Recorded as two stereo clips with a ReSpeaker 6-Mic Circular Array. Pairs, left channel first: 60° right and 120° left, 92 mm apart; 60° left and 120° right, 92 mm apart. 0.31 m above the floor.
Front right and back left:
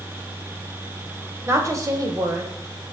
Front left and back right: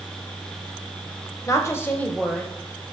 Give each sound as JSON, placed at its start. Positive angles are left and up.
{"t": 1.5, "sound": "a woman speaking", "azimuth_deg": 85, "distance_m": 1.2}